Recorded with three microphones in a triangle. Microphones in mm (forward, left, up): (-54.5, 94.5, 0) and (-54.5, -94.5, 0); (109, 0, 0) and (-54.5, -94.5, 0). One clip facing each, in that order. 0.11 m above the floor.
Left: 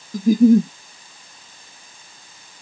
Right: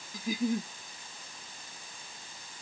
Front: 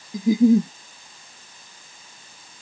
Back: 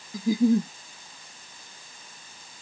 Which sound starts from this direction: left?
A giggle, at 0.1 s.